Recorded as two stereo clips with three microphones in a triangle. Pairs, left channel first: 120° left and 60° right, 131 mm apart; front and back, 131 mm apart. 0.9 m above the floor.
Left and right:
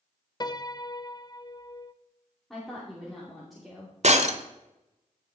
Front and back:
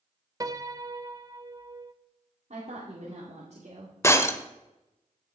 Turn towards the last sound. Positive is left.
turn(degrees=-65)